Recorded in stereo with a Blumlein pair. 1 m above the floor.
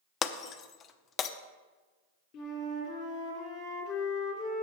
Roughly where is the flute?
Ahead left.